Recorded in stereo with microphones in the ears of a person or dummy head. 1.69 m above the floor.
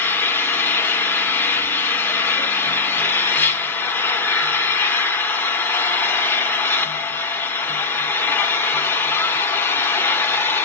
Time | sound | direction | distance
0.0 | an engine running | 15° left (ahead or behind) | 1.2 m